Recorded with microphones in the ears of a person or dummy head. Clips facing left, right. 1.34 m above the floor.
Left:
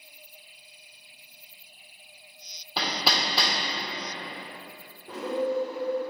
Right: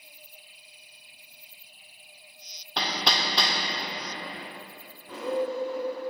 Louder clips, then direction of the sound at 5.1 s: Left 1 dB; 25° left (ahead or behind).